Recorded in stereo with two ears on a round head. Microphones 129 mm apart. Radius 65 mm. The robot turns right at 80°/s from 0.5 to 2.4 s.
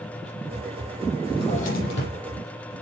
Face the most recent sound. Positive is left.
turn(degrees=115)